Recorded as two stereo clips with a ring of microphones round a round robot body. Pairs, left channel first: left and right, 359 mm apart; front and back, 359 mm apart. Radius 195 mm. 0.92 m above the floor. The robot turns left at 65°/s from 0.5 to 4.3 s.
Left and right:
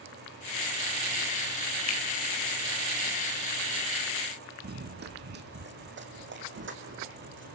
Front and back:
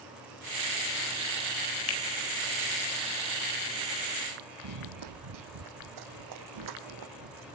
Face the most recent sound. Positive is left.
turn(degrees=-150)